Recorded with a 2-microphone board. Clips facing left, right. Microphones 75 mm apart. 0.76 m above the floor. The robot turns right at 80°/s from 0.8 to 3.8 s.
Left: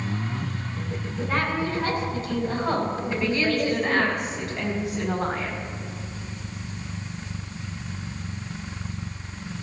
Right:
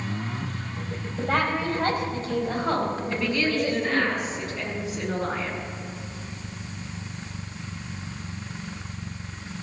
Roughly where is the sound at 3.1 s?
Ahead.